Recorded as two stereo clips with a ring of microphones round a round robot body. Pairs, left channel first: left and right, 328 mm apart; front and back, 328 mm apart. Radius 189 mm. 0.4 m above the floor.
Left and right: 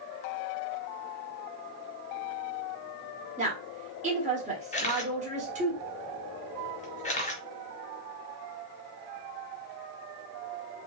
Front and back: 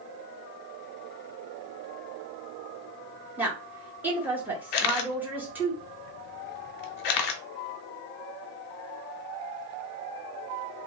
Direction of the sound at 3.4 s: 105° right.